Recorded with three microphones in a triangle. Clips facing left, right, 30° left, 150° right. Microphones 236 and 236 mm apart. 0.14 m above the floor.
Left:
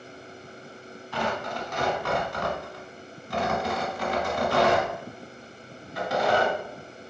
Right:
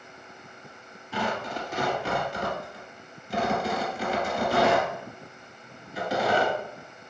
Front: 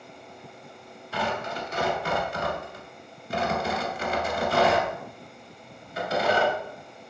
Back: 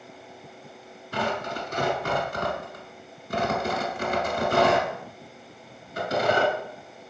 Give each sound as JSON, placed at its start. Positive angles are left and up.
{"t": 1.1, "sound": "tearing paper", "azimuth_deg": -170, "distance_m": 1.4}